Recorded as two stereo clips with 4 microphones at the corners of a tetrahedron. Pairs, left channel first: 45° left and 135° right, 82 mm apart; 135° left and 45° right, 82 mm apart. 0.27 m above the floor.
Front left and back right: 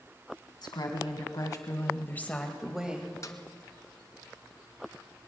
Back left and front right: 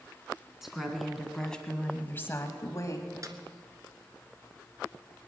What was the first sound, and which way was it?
A woman speaking, 40° left.